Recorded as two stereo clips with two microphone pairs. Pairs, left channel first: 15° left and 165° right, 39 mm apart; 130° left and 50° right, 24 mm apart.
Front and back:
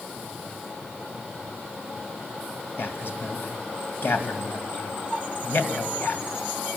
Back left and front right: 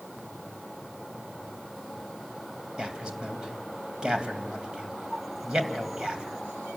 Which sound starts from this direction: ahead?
A man speaking, at 2.8 s.